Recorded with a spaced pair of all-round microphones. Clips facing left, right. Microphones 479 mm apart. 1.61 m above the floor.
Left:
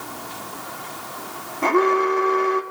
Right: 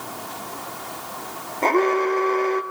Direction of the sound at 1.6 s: 30° left (ahead or behind).